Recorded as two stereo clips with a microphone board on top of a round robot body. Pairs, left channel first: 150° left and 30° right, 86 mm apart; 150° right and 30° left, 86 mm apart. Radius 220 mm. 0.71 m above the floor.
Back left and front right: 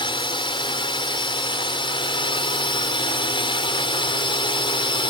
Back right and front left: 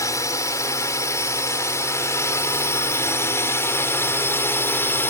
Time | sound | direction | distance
0.0 | a drone | 160° left | ?